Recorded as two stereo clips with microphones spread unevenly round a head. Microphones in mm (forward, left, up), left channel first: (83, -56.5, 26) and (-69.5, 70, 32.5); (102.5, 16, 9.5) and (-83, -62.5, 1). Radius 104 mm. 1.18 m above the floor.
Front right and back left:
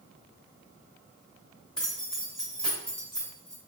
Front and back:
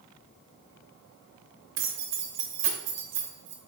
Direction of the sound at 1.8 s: 125° right.